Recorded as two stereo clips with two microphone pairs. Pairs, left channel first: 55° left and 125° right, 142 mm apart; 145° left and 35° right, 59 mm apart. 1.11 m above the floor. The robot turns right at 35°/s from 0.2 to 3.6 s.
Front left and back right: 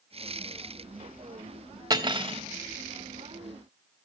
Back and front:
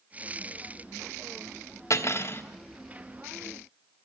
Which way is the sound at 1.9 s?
175° left.